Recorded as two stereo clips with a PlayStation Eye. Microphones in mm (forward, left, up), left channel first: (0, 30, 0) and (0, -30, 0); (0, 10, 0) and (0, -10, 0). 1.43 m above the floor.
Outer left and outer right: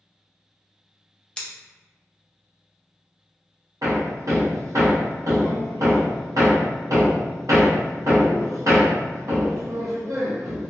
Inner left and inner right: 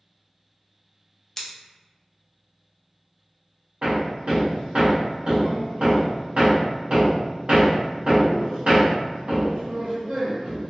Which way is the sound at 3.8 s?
65° right (ahead or behind).